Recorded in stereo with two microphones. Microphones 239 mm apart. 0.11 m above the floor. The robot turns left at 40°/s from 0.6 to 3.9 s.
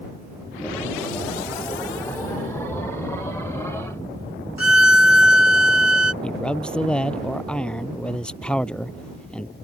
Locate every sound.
4.6 s a violin: 65° left (ahead or behind)
6.2 s a man speaking: 5° left (ahead or behind)